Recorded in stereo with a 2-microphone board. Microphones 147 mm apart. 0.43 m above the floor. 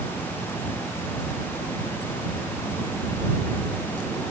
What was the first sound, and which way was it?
Only background noise.